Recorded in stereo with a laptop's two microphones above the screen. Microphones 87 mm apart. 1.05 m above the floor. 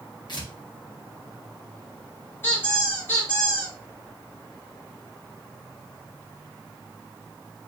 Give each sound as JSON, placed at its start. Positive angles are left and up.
{"t": 0.3, "sound": "tearing paper", "side_deg": 55, "distance_m": 0.9}
{"t": 2.4, "sound": "a squeak", "side_deg": 25, "distance_m": 1.9}